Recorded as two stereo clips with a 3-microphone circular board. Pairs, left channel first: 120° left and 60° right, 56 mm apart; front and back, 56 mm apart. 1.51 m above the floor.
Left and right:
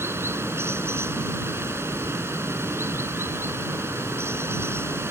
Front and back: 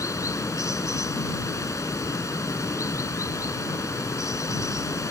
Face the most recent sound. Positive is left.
turn(degrees=-20)